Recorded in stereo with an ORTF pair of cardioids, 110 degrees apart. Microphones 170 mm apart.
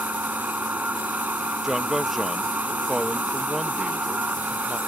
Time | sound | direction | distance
0.0 | a machine running | 10° right | ?
1.6 | a man speaking | straight ahead | ?